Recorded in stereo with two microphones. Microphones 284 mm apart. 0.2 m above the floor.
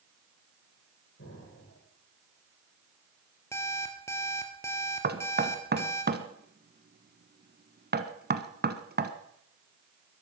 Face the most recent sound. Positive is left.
turn(degrees=-35)  # may be behind; listen again after turning